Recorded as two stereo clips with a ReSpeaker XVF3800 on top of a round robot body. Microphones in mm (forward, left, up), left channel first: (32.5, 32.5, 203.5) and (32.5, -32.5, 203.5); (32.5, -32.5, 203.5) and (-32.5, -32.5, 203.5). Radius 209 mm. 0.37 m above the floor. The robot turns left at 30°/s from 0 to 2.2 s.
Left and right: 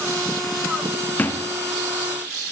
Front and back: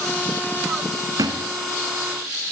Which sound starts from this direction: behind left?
A thud, at 1.2 s.